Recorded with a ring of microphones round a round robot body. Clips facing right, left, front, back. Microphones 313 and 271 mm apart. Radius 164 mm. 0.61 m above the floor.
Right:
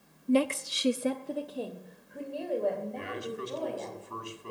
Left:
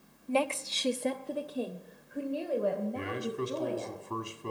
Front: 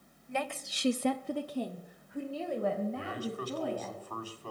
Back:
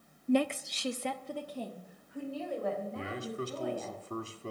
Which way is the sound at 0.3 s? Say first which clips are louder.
Right 5 dB, back 10 dB; 155° right.